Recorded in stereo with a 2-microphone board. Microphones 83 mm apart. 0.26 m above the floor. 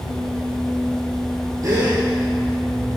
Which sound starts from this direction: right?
A gasp, at 1.6 s.